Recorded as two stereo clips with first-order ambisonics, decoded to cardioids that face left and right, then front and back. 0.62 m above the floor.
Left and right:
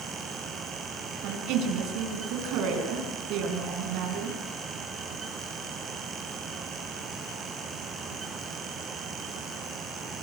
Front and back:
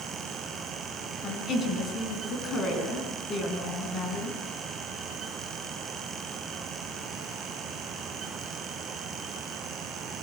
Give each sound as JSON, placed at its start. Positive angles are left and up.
{"t": 1.2, "sound": "a woman speaking", "azimuth_deg": -60, "distance_m": 5.5}